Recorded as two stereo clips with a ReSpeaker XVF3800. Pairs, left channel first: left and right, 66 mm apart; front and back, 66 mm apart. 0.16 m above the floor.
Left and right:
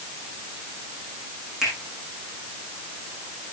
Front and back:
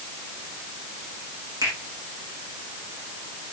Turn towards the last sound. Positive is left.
turn(degrees=-175)